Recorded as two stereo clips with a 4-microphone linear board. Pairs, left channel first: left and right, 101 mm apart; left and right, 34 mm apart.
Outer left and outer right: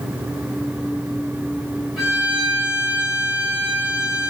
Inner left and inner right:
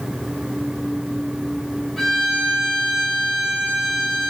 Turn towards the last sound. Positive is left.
turn(degrees=-5)  # may be behind; listen again after turning